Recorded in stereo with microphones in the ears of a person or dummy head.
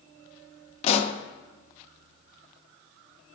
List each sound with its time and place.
0.8 s a pop: 35° left (ahead or behind), 0.6 m